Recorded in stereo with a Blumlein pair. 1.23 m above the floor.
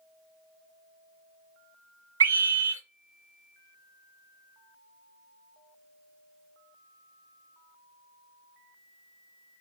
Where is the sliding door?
No sliding door in this recording.